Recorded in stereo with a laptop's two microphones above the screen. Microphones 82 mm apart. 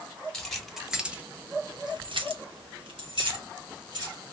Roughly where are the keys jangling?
Centre.